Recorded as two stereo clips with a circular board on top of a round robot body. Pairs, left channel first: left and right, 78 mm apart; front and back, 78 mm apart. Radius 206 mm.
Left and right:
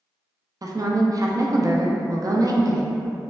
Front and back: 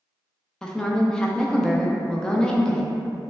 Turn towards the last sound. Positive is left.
turn(degrees=-80)